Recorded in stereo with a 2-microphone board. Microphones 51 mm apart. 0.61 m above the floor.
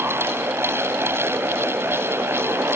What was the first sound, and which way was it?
Only background noise.